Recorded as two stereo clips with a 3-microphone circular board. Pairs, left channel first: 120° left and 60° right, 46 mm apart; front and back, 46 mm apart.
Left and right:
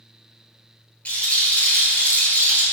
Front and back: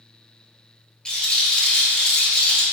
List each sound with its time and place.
1.1 s a rattle: 65° left, 1.0 m